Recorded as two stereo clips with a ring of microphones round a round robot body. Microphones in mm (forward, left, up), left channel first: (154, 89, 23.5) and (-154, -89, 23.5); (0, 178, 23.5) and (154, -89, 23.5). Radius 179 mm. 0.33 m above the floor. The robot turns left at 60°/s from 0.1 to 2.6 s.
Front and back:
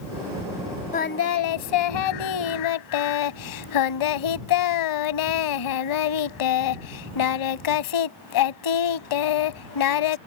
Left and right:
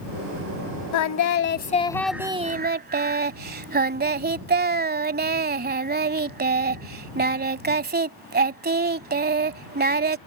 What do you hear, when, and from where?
0.9 s singing: 100° left; by 10.2 s straight ahead